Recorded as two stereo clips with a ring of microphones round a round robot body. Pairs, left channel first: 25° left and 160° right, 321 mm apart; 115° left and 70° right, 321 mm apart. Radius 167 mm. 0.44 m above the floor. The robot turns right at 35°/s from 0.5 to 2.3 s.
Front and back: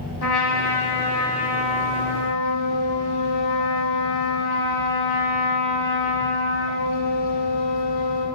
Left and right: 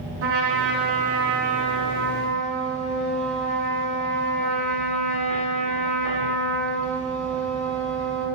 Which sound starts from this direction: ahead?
A trumpet, at 0.2 s.